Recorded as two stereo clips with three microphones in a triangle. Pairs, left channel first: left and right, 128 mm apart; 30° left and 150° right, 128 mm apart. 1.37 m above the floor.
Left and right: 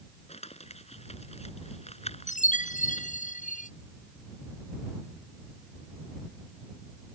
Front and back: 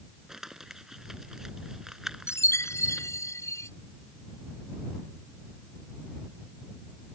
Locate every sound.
0.3 s crumpling: 125° left
2.3 s a chime: 100° left